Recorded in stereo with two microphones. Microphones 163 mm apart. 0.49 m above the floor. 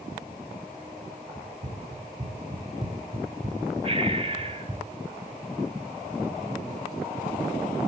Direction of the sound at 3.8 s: 40° right (ahead or behind).